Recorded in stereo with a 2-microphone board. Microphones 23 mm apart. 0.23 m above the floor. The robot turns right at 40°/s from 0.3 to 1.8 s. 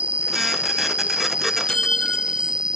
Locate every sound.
0.0 s an insect: 100° right; by 2.8 s 40° right
1.7 s a clink: 35° left (ahead or behind); by 2.6 s 40° left (ahead or behind)